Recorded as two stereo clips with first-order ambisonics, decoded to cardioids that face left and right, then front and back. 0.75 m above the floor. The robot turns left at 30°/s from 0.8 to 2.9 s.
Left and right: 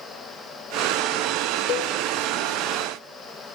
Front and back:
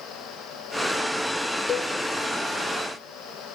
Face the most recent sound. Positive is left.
turn(degrees=35)